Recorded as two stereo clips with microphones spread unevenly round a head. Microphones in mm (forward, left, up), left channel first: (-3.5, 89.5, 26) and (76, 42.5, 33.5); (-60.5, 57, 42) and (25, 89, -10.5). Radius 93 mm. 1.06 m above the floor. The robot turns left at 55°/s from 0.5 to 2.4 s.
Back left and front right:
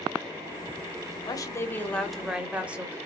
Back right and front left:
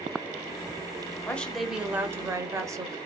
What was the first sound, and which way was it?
A woman speaking, 110° left.